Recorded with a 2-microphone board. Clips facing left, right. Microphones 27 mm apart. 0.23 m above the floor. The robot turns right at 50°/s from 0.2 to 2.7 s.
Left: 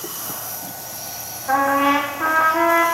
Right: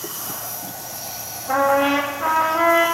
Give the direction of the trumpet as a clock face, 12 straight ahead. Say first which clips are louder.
Left 1 dB; 10 o'clock.